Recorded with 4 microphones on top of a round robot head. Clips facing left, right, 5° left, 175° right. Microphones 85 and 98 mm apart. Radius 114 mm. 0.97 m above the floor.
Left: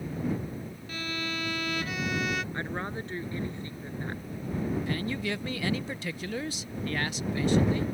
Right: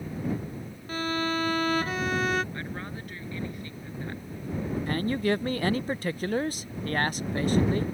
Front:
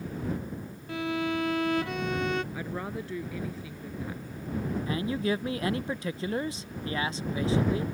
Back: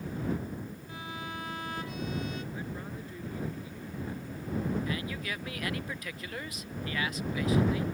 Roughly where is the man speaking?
Ahead right.